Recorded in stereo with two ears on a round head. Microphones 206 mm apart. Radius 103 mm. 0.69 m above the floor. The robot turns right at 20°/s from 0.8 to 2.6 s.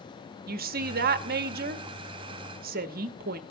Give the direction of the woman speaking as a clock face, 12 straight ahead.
4 o'clock.